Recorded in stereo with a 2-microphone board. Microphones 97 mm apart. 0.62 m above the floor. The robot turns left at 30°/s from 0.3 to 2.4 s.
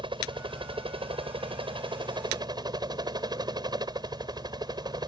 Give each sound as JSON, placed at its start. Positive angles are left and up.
{"t": 0.0, "sound": "a helicopter", "azimuth_deg": -65}